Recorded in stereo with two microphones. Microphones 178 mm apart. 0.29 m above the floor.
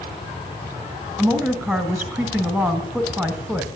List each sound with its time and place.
1.2 s a woman speaking: centre (ahead or behind), 1.2 m